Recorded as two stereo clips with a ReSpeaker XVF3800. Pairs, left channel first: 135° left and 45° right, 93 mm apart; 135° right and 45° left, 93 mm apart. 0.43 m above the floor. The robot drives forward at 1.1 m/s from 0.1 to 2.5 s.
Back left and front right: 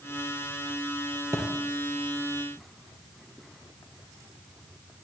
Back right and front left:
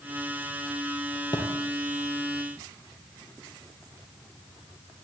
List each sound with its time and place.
1.3 s a thud: 105° right, 5.5 m